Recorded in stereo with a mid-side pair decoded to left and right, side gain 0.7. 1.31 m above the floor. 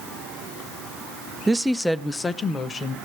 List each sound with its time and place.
1.5 s a woman speaking: 15° right, 0.6 m; by 3.0 s 30° left, 1.3 m